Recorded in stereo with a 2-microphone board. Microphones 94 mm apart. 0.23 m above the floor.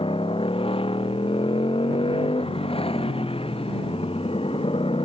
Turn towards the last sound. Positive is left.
turn(degrees=90)